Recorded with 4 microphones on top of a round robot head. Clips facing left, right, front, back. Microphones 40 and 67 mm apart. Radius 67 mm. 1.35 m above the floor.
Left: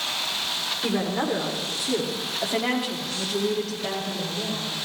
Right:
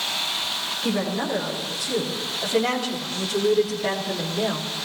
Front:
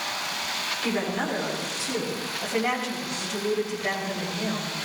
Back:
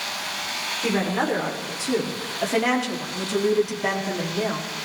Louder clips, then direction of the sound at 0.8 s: Even, back 5 dB; 130° left.